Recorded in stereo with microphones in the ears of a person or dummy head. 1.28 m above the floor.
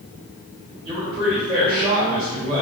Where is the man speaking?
30° right (ahead or behind), 1.5 m.